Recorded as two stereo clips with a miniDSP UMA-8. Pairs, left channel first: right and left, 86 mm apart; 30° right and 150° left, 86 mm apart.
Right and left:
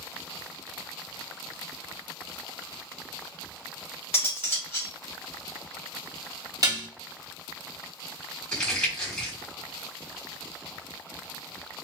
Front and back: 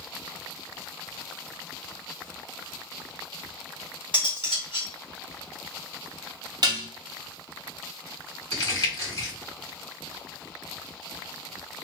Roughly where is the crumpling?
Ahead.